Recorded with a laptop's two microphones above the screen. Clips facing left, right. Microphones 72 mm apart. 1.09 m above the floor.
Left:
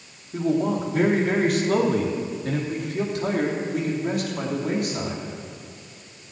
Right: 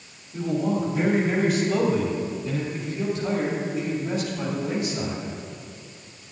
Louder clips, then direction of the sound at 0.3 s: Left 2 dB; 65° left (ahead or behind).